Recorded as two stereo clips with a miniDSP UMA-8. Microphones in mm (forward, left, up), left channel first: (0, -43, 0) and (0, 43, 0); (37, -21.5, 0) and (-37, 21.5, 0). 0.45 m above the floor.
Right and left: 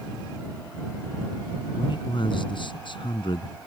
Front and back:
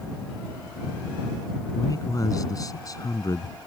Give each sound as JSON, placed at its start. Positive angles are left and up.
{"t": 1.8, "sound": "a man speaking", "azimuth_deg": -75}